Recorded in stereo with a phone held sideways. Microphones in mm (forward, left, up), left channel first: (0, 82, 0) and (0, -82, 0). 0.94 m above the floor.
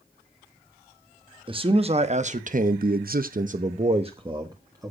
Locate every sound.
1.5 s a man speaking: 30° right (ahead or behind), 1.4 m; by 4.9 s 20° right (ahead or behind), 1.6 m